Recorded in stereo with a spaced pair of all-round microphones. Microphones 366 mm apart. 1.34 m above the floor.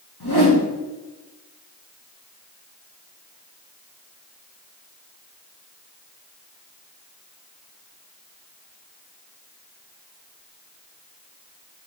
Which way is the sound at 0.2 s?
80° left.